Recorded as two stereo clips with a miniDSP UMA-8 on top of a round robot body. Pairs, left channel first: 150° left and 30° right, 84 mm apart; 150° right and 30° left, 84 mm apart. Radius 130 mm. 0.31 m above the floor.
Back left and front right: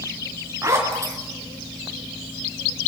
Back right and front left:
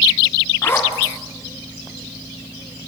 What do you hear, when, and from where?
0.6 s a zipper: 85° right, 3.5 m